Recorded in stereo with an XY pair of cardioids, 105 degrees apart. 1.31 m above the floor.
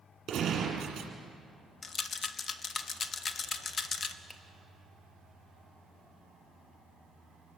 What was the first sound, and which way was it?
A gunshot, 60° right.